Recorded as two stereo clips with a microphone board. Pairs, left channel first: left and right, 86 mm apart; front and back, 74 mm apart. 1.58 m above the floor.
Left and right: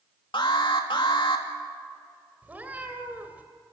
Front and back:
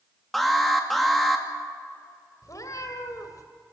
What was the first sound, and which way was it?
An alarm, 90° left.